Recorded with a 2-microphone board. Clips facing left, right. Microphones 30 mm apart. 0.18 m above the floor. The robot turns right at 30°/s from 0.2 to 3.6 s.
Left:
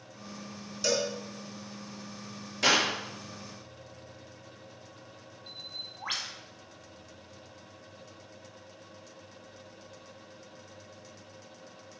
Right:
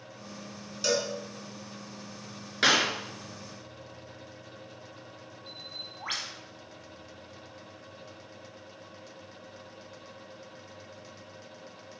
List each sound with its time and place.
0.8 s a cowbell: 15° right (ahead or behind), 1.9 m; by 1.1 s 20° right (ahead or behind), 1.9 m
2.6 s a clap: 55° right (ahead or behind), 2.5 m; by 2.9 s 60° right (ahead or behind), 2.5 m
5.5 s a bird: centre (ahead or behind), 1.3 m